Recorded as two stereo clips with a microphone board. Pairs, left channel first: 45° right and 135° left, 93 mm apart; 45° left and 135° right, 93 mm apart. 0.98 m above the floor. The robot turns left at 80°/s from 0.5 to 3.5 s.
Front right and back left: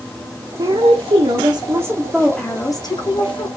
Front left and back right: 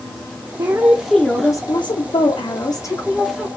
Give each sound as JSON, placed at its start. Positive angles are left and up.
{"t": 0.6, "sound": "a woman speaking", "azimuth_deg": 175, "distance_m": 0.6}